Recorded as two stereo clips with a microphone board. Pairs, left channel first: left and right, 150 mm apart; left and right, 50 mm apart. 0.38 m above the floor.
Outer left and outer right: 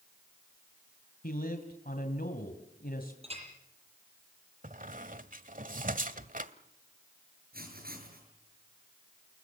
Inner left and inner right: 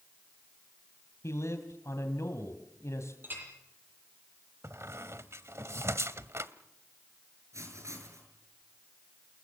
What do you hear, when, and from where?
1.2 s a man speaking: 65° left (ahead or behind), 2.5 m
3.2 s a clink: 40° right (ahead or behind), 8.5 m
4.6 s a squeak: 60° right (ahead or behind), 1.2 m
7.5 s writing: 70° right (ahead or behind), 7 m